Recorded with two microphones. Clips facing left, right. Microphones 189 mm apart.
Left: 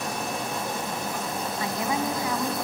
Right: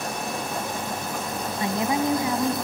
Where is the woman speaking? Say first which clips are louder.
Right 5 dB; 25° right (ahead or behind), 1.1 m.